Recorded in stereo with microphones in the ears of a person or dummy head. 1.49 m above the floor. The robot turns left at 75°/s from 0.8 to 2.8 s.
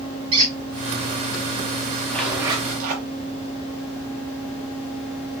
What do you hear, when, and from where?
0.3 s a squeak: 15° right (ahead or behind), 0.7 m
2.1 s a zipper: 10° left, 1.5 m; by 3.1 s 45° right, 1.5 m